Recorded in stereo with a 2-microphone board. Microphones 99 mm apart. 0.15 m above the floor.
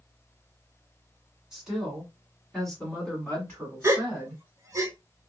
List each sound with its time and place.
1.5 s a woman speaking: 5° right (ahead or behind), 1.8 m; by 4.4 s 20° left (ahead or behind), 1.6 m
3.8 s a gasp: 30° right (ahead or behind), 0.6 m